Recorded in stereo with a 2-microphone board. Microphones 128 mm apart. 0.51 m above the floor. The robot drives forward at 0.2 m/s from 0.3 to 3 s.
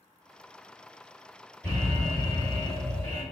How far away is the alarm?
About 2.0 m.